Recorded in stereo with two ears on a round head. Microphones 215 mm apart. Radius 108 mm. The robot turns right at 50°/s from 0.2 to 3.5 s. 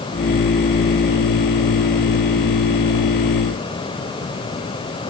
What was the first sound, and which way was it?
Only background noise.